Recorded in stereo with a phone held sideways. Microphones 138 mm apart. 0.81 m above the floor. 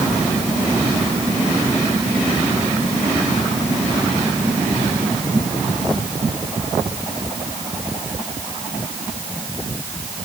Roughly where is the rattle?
No rattle in this recording.